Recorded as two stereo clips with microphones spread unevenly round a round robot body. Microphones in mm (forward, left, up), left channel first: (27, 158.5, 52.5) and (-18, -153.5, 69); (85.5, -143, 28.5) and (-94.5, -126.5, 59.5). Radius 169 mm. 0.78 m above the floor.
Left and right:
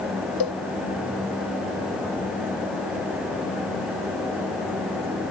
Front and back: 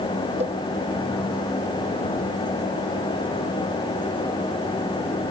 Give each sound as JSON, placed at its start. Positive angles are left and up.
{"t": 0.4, "sound": "a cowbell", "azimuth_deg": 105}